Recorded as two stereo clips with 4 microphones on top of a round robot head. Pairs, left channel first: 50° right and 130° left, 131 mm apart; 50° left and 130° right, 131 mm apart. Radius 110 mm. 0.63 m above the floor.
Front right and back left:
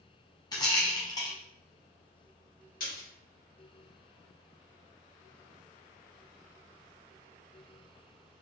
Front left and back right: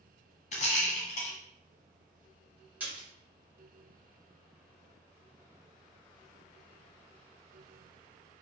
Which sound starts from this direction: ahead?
A rattle, at 0.5 s.